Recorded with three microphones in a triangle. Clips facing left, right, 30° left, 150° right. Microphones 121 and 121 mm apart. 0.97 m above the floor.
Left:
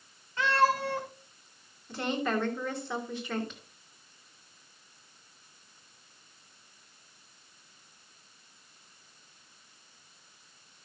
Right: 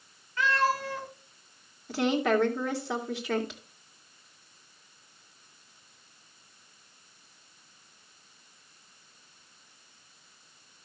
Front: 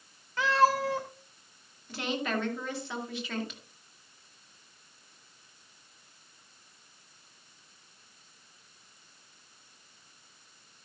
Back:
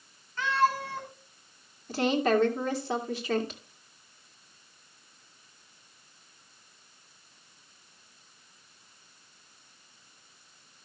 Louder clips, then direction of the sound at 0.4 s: Left 1 dB, front 2 dB; 25° left.